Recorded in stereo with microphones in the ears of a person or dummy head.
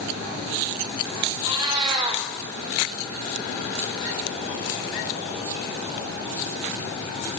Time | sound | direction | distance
1.4 | a cat meowing | 20° right (ahead or behind) | 1.3 m